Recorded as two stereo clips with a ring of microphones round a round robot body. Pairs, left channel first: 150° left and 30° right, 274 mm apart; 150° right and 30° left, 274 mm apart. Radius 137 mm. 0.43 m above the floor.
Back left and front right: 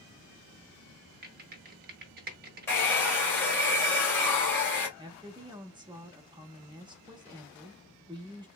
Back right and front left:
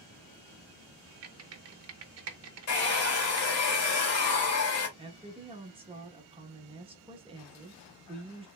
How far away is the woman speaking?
About 0.7 m.